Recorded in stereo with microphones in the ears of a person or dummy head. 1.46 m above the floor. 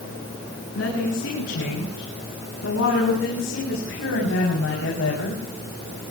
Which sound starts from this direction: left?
A woman speaking, at 0.8 s.